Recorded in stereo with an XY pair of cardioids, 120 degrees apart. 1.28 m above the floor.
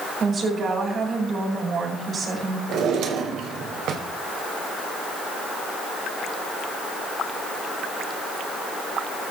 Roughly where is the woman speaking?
Ahead right.